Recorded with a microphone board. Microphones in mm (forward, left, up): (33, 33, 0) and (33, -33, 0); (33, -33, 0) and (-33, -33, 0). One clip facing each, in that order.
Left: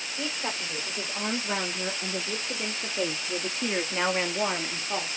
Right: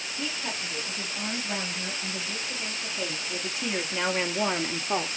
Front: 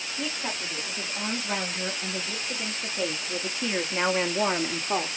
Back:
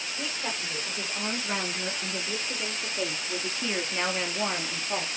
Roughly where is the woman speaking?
Left.